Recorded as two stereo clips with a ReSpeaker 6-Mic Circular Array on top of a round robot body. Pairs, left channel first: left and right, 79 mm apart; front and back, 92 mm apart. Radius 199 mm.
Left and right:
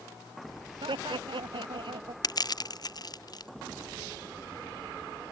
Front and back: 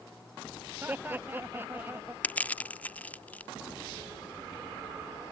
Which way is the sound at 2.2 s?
75° left.